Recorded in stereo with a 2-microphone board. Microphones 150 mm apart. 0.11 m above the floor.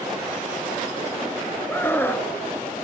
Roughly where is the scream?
Centre.